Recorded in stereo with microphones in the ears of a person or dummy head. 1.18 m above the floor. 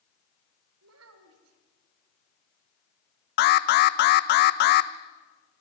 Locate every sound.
0.8 s a child speaking: 80° right, 3 m
3.4 s an alarm: 55° left (ahead or behind), 0.6 m